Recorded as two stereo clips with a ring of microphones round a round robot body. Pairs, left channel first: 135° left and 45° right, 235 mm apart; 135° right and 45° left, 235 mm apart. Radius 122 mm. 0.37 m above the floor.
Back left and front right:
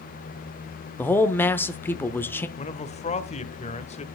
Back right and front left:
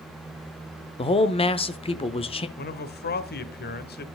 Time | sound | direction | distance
1.0 | a man speaking | 155° right | 0.8 m
2.6 | a man speaking | 170° right | 1.3 m